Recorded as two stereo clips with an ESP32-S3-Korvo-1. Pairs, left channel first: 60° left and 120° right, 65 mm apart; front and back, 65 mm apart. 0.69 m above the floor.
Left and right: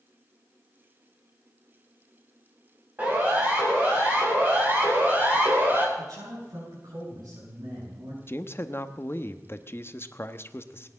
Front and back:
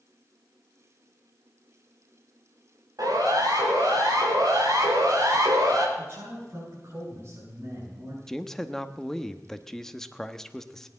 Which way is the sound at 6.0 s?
125° right.